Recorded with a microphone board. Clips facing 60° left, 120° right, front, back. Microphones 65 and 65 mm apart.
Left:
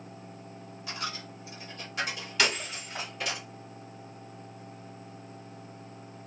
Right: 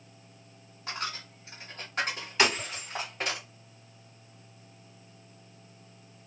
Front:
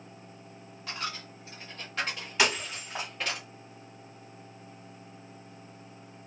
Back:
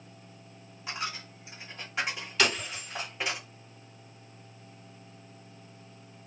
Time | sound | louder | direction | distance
0.9 | a dropped coin | right 1 dB, back 1 dB | 110° right | 1.2 m
2.4 | breaking glass | right 2 dB, front 1 dB | 65° right | 2 m